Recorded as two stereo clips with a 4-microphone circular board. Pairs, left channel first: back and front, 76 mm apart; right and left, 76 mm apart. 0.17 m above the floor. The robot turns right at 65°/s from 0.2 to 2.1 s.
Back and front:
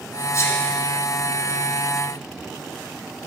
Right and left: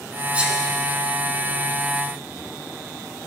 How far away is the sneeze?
About 1.8 m.